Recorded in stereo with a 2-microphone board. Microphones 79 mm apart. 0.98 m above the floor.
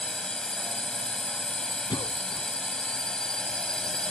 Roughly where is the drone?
Centre.